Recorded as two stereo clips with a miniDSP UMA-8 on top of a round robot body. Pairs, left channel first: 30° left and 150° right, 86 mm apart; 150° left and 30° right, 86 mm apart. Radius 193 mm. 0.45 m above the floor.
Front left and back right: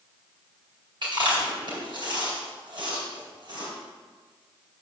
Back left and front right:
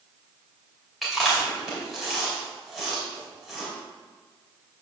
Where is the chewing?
120° right, 4 m.